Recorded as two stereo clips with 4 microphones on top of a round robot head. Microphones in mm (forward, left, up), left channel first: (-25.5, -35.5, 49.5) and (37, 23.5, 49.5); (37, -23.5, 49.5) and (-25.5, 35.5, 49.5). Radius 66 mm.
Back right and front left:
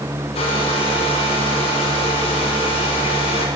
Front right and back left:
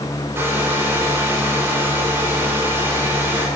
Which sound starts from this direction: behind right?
A hair dryer, at 0.3 s.